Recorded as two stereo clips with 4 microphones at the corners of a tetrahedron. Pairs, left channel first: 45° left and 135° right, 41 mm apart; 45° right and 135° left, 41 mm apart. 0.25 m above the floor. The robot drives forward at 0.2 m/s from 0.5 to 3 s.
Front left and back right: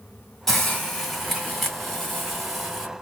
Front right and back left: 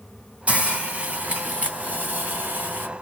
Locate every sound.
0.5 s a hiss: 120° left, 1.5 m; by 2.9 s 145° left, 1.6 m